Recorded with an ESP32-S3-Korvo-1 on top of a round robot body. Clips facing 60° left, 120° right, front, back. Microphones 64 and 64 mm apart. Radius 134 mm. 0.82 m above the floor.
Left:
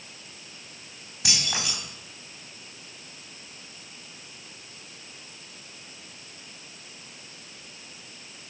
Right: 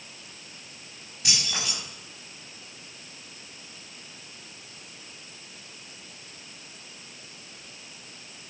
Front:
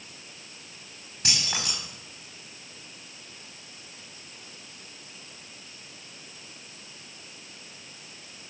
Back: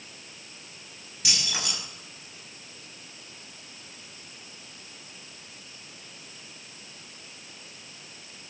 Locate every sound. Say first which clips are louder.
1.2 s keys jangling: left 1 dB, front 1 dB; 55° left, 5 m